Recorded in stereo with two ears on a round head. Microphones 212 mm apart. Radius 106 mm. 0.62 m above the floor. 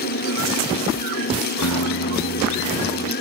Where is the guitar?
75° left (ahead or behind).